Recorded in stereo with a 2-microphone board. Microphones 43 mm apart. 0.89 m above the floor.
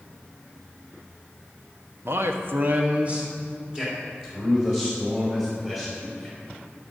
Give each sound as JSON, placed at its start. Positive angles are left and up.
{"t": 2.0, "sound": "a man speaking", "side_deg": -60, "distance_m": 1.0}